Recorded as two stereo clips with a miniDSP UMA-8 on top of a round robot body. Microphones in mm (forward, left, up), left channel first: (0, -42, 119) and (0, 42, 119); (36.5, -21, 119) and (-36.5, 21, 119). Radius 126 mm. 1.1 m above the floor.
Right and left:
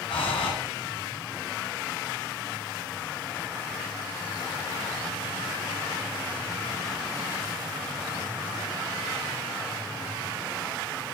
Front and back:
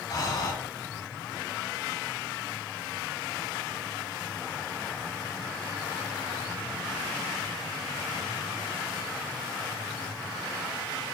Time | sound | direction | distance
0.1 | breathing | 80° right | 1.7 m